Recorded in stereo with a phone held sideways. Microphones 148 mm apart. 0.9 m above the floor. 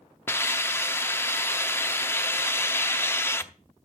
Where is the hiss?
15° left (ahead or behind), 0.6 m.